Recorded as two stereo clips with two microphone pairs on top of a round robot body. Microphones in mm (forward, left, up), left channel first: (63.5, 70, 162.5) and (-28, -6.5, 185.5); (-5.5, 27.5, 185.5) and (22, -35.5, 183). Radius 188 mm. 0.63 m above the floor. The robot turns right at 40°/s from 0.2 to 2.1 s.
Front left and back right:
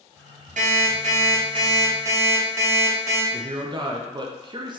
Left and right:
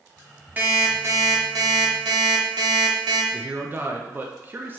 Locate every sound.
0.6 s an alarm clock: 135° right, 1.0 m; by 3.2 s 70° right, 1.0 m
3.3 s a man speaking: 100° right, 0.7 m